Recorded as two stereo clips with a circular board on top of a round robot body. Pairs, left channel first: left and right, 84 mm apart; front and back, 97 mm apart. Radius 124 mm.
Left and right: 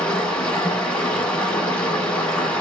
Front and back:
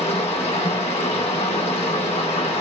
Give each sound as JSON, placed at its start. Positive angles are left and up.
{"t": 0.0, "sound": "running water", "azimuth_deg": 15, "distance_m": 1.3}